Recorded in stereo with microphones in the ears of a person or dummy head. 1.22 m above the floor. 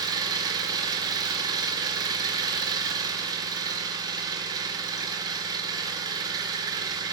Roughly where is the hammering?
I don't hear hammering.